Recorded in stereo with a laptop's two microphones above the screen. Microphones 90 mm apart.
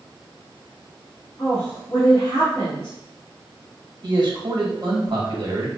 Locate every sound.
1.4 s a woman speaking: 35° left (ahead or behind), 1.5 m
4.0 s a man speaking: 55° right (ahead or behind), 1.2 m